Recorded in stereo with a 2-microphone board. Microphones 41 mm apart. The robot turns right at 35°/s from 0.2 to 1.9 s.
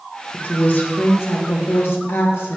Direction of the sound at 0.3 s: 50° left.